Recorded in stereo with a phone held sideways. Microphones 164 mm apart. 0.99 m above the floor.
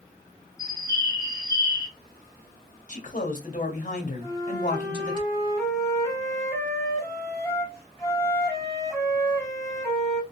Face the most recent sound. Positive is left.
turn(degrees=20)  # may be behind; listen again after turning